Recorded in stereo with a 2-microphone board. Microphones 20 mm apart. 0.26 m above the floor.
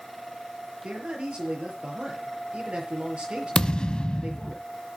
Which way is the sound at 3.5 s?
50° left (ahead or behind).